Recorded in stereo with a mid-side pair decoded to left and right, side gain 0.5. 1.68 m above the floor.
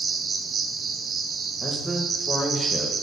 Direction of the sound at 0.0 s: 45° right.